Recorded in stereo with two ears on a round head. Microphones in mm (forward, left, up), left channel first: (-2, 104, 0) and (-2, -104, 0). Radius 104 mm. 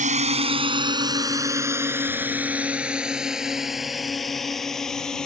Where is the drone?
35° right (ahead or behind); by 5.3 s 5° left (ahead or behind).